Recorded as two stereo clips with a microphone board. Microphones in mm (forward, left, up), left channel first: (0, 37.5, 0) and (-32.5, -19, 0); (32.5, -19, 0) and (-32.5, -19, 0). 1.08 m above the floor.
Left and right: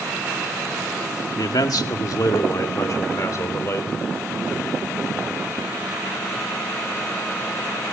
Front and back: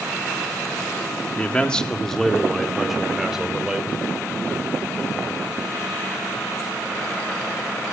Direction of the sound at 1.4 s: 70° left.